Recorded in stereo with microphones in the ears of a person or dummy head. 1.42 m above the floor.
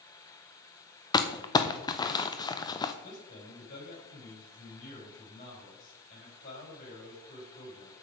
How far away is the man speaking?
About 6 m.